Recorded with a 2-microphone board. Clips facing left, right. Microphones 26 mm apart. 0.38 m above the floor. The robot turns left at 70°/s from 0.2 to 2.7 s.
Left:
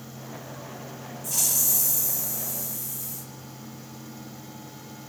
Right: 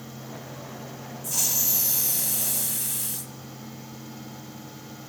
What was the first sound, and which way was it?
A hiss, straight ahead.